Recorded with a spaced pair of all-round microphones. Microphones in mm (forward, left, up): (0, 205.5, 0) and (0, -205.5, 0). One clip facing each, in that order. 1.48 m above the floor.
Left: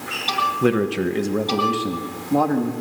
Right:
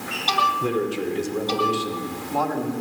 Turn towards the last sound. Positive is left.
turn(degrees=65)  # may be behind; listen again after turning